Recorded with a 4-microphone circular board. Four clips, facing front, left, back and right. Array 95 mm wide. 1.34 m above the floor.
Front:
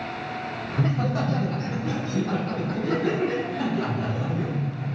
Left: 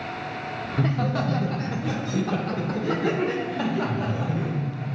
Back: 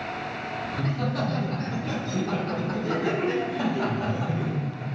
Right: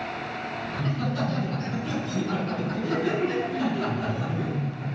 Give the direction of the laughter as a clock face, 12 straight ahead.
10 o'clock.